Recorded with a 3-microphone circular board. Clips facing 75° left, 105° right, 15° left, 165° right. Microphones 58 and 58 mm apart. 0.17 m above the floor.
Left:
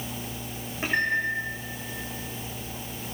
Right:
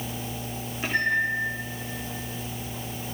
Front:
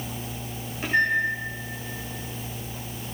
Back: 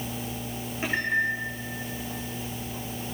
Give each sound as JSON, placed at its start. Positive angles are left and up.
{"t": 0.8, "sound": "a microwave", "azimuth_deg": 120, "distance_m": 9.5}